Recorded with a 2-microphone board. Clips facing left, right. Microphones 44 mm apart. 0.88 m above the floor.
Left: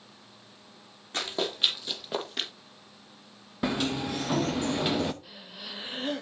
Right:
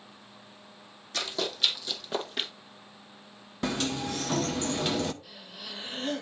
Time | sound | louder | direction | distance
1.1 | running footsteps | left 1 dB | 30° left (ahead or behind) | 2.5 m
3.6 | a sliding door | left 2 dB | 10° left (ahead or behind) | 0.5 m
5.2 | breathing | even | 5° left (ahead or behind) | 0.7 m